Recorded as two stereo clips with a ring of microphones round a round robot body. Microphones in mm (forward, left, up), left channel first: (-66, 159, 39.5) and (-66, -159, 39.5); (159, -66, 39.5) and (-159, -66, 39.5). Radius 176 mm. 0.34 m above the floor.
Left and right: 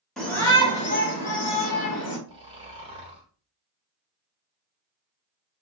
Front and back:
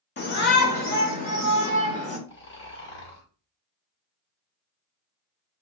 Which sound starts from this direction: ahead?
A shout, at 0.2 s.